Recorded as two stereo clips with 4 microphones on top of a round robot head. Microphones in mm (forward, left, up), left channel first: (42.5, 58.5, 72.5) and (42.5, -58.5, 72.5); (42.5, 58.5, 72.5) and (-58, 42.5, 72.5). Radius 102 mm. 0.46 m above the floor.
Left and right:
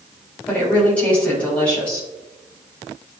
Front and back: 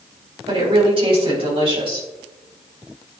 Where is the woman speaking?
170° left, 3.5 m.